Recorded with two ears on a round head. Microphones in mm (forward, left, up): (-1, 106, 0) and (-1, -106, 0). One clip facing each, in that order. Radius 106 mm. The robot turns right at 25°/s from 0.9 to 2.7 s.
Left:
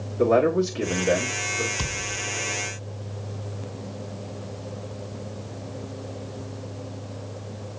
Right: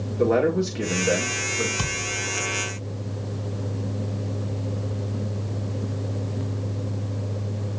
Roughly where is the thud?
Centre.